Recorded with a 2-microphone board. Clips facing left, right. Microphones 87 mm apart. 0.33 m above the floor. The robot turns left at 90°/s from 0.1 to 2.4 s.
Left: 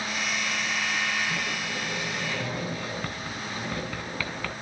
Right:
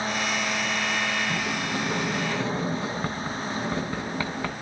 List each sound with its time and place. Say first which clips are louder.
1.3 s a sliding door: right 4 dB; 55° right, 2 m; by 4.5 s 155° right, 2 m